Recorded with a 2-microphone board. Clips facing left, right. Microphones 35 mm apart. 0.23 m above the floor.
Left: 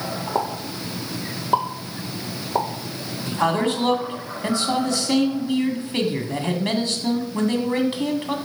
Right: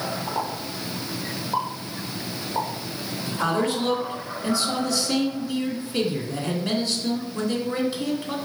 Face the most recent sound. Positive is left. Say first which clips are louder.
# left 3 dB
turn(degrees=45)  # may be behind; listen again after turning